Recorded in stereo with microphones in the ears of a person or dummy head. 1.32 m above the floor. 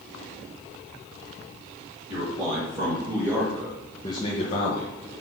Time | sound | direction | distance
2.1 | a man speaking | 25° right (ahead or behind) | 3 m